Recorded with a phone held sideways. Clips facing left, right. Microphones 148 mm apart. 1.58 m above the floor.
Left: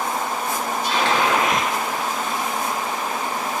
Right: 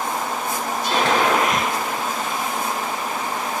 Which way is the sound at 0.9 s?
50° right (ahead or behind).